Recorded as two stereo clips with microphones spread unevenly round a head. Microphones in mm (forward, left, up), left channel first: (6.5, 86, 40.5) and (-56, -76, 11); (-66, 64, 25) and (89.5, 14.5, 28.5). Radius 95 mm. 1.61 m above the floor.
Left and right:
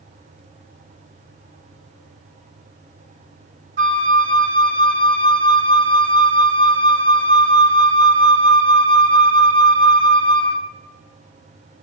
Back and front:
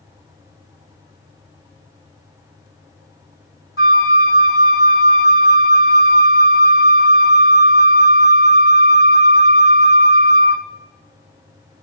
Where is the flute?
155° right, 1.0 m.